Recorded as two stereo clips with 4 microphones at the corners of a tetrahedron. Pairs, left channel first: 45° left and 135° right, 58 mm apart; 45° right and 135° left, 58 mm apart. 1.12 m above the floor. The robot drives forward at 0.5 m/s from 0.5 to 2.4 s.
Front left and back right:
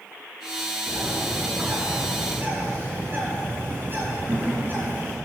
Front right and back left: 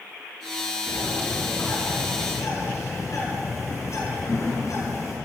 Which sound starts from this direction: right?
A bird, at 0.9 s.